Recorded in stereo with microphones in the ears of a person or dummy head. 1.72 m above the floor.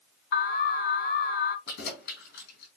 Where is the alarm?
55° left (ahead or behind), 0.8 m.